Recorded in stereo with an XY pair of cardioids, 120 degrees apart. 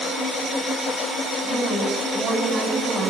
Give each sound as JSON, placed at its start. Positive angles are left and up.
{"t": 1.4, "sound": "a woman speaking", "azimuth_deg": -55, "distance_m": 6.0}